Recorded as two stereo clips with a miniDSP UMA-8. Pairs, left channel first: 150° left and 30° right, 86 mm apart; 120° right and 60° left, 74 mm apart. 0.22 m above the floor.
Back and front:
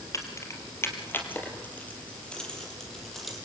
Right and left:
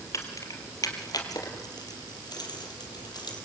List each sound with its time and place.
0.1 s keys jangling: 160° right, 4 m; by 3.4 s 120° right, 5.5 m